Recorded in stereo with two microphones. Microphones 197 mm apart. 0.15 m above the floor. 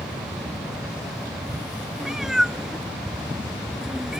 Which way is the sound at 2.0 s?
Centre (ahead or behind).